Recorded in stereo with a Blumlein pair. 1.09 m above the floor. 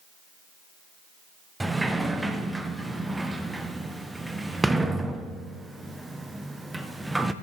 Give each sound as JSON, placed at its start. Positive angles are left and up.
{"t": 1.6, "sound": "a sliding door", "azimuth_deg": -5, "distance_m": 0.5}